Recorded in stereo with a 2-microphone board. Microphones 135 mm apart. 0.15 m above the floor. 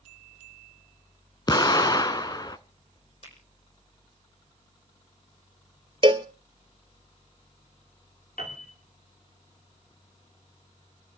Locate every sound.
1.5 s an explosion: 30° left (ahead or behind), 0.7 m
3.2 s a finger snap: 55° left (ahead or behind), 6.5 m
6.0 s a cowbell: 40° right (ahead or behind), 1.0 m
8.4 s a piano: 75° left (ahead or behind), 6 m